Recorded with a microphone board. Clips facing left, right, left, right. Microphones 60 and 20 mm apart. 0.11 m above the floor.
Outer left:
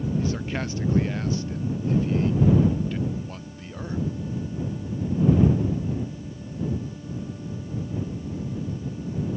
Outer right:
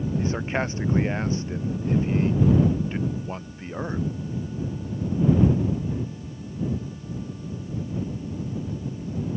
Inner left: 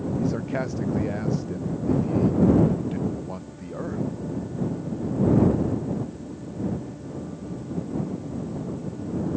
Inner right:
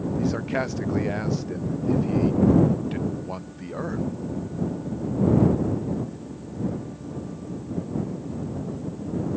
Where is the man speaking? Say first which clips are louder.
Outer right 2 dB, inner right 2 dB; 30° right (ahead or behind).